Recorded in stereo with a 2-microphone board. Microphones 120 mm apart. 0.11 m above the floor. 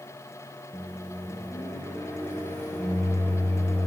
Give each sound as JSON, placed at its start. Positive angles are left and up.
{"t": 0.7, "sound": "a microwave", "side_deg": 20, "distance_m": 1.2}